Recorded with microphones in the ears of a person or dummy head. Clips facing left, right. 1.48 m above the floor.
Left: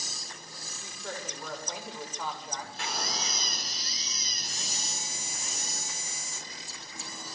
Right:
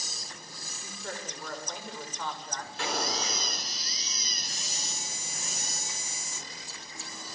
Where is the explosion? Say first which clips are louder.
Right 7 dB; 70° right (ahead or behind), 5 m.